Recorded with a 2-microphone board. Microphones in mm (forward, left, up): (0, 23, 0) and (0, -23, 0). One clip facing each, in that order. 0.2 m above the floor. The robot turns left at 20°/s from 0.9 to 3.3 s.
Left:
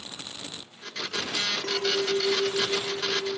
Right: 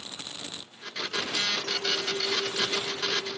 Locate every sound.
1.6 s a clink: 105° left; by 3.4 s 75° left